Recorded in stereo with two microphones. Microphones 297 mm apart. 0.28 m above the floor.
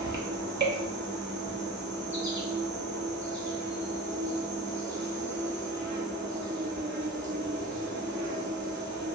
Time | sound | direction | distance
0.0 | an insect | 40° right (ahead or behind) | 0.7 m